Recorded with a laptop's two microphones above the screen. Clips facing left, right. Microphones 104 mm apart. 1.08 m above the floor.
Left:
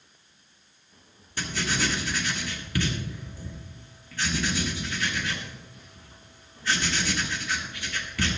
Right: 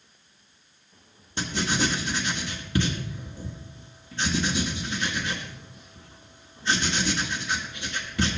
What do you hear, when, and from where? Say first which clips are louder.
1.4 s writing: right 3 dB; 25° right (ahead or behind), 1.3 m